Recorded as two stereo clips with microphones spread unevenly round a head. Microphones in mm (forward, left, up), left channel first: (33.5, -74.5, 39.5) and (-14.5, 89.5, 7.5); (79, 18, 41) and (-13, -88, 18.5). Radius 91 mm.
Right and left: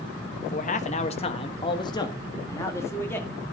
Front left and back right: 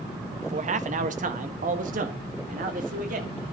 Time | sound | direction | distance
0.4 | a man speaking | 120° right | 1.3 m